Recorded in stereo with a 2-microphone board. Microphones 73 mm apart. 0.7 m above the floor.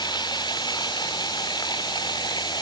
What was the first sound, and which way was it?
Running water, 85° left.